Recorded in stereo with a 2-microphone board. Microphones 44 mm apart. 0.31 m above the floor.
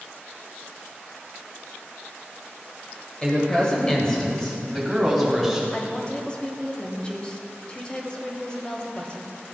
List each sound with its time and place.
3.2 s a woman speaking: 20° left (ahead or behind), 1.5 m; by 5.6 s 5° left (ahead or behind), 3 m
5.7 s a woman speaking: 25° left (ahead or behind), 1.0 m